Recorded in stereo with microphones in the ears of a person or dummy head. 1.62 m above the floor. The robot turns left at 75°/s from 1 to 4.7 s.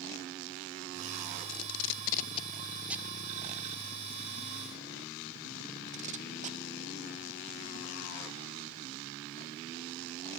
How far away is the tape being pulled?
About 0.6 m.